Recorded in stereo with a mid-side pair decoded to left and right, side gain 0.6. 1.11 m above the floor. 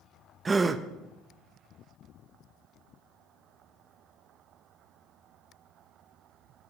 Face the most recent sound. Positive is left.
turn(degrees=-20)